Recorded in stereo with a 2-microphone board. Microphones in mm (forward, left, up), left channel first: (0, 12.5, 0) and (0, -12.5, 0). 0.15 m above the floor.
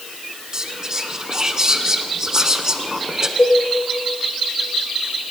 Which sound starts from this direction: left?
A cowbell, at 3.4 s.